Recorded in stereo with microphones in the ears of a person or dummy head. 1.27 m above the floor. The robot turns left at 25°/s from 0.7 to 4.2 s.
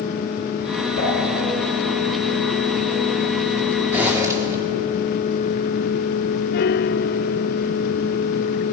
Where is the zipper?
10° right (ahead or behind), 3.5 m; by 4.6 s 20° right (ahead or behind), 3.5 m.